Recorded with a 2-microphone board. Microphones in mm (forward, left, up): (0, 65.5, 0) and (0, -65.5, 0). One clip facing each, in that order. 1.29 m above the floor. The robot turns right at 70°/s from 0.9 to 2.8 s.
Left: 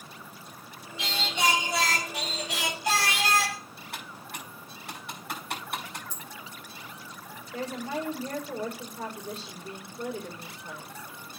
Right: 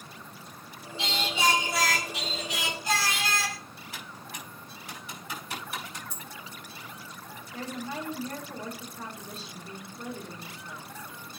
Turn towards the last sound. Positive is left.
turn(degrees=85)